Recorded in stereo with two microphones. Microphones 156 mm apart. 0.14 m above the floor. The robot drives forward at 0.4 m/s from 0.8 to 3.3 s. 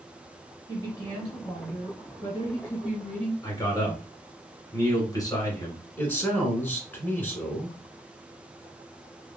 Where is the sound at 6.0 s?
10° left (ahead or behind), 1.5 m.